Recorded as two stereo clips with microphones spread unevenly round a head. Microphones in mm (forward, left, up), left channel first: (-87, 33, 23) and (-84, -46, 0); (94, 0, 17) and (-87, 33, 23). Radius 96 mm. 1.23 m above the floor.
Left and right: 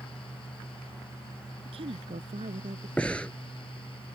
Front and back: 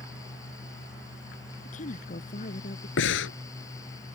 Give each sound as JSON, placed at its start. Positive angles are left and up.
{"t": 0.0, "sound": "a fan", "azimuth_deg": 65}
{"t": 1.6, "sound": "a woman speaking", "azimuth_deg": -65}
{"t": 3.0, "sound": "breathing", "azimuth_deg": 10}